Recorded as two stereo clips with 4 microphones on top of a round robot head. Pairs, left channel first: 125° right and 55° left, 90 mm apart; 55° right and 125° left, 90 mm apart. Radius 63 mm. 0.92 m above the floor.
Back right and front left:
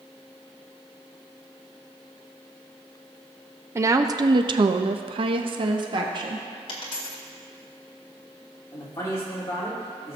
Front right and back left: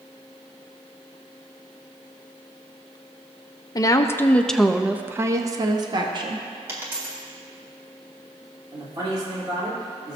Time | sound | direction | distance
3.8 | a woman speaking | 5° right | 0.8 m
6.7 | a dropped coin | 165° right | 1.7 m
8.7 | a man speaking | 175° left | 3.5 m